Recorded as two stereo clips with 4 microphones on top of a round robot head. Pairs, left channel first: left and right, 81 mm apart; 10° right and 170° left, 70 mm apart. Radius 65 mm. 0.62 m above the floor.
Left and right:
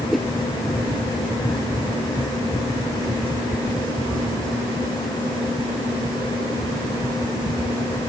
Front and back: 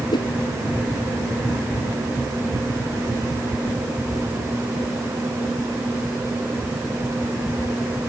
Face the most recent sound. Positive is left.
turn(degrees=0)